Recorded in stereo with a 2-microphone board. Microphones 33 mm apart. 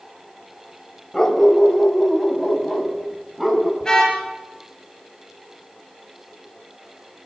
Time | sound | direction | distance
1.1 | a dog barking | 20° left (ahead or behind) | 1.5 m
3.8 | a car horn | 15° left (ahead or behind) | 7 m